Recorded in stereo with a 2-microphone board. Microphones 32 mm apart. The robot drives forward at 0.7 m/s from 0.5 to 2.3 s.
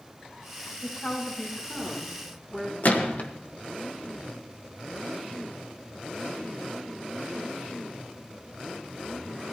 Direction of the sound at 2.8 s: 60° left (ahead or behind).